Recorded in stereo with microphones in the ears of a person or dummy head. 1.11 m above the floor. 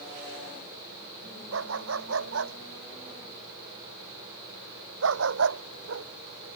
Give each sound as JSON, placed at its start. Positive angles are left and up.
{"t": 1.5, "sound": "a dog barking", "side_deg": -85}